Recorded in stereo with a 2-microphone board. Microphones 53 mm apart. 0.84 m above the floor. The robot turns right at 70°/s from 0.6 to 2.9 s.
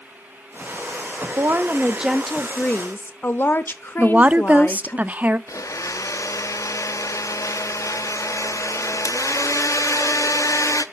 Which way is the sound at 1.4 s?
60° right.